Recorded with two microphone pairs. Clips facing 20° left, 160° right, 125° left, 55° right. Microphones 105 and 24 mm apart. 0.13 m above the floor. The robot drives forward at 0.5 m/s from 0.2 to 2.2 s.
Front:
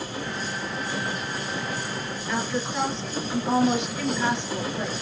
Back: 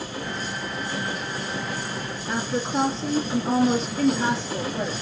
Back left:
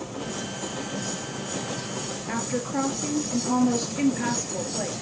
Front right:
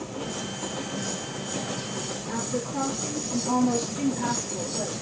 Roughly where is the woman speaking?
Behind.